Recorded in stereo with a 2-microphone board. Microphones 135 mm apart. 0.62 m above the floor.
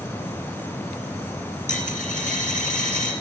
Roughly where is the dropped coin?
Left.